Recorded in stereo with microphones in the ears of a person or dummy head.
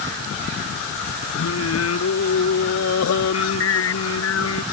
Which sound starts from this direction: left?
Singing, at 1.4 s.